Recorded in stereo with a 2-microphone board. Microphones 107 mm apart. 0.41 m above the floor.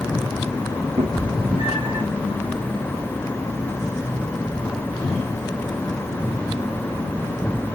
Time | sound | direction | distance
1.0 | a cat meowing | 45° right (ahead or behind) | 4.5 m